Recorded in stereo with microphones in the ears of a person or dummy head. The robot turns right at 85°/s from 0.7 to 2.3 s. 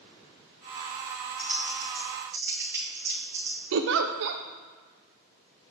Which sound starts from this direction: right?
A giggle, at 3.7 s.